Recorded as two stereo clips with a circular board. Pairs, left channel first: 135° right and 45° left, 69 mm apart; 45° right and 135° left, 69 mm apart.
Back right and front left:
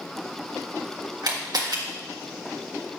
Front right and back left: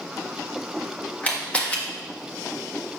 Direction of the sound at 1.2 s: 30° left.